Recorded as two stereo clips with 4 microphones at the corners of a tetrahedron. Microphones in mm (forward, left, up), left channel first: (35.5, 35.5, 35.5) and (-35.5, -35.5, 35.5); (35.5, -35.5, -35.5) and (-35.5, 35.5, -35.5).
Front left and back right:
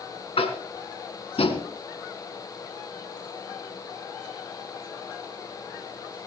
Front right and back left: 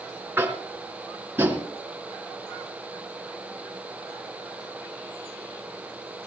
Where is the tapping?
65° left, 2.5 m.